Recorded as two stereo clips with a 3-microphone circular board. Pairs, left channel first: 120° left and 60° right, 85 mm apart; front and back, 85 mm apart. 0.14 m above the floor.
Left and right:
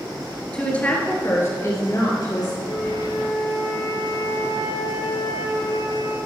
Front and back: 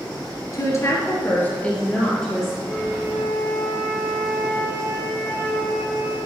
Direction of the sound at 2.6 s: 90° left.